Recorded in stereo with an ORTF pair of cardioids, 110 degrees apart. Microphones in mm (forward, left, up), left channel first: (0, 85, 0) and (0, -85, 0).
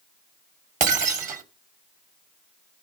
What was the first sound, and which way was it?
Breaking glass, 50° right.